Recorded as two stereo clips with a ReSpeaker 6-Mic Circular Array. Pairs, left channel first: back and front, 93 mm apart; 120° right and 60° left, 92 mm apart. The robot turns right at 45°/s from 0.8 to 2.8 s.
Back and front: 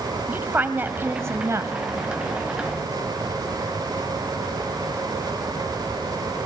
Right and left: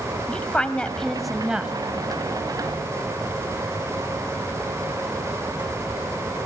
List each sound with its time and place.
0.3 s a woman speaking: 50° right, 1.1 m; by 1.7 s 10° right, 1.1 m